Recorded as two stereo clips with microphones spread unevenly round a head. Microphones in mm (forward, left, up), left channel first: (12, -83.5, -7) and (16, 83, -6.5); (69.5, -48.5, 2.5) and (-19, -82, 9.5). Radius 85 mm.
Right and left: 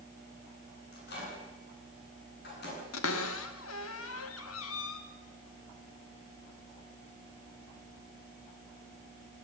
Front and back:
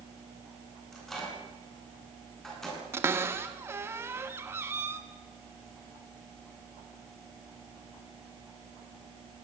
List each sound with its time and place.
0.9 s a microwave: 65° right, 9 m
2.9 s a cupboard door: 95° right, 1.9 m